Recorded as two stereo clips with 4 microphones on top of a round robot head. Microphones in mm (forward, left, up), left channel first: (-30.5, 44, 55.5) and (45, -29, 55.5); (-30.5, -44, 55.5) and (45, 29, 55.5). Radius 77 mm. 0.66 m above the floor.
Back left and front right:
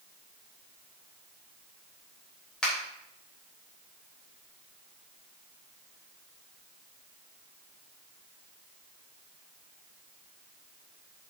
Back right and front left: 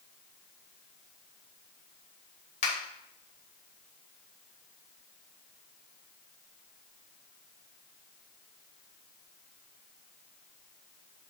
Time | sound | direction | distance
2.6 | a finger snap | 140° right | 3.5 m